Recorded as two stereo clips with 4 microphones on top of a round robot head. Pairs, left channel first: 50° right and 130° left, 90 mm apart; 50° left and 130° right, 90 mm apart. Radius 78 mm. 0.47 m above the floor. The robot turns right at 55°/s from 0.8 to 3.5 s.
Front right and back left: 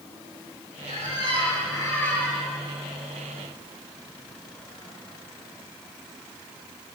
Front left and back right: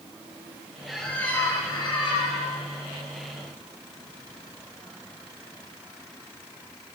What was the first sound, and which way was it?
A squeak, 45° right.